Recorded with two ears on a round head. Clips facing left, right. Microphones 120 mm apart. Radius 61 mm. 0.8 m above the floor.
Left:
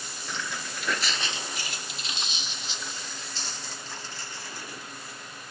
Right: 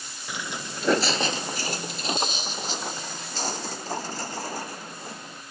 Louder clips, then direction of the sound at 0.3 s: Right 2 dB; 5° right (ahead or behind).